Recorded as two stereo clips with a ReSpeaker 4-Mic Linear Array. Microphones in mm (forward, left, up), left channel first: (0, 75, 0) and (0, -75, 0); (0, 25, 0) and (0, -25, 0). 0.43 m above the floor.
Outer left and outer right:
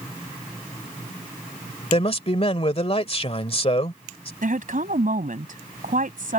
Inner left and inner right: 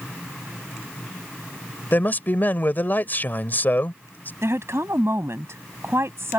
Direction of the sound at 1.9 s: 40° left (ahead or behind).